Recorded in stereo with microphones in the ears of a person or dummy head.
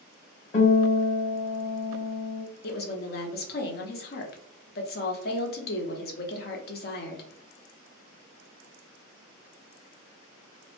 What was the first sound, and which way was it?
A guitar, 35° left (ahead or behind).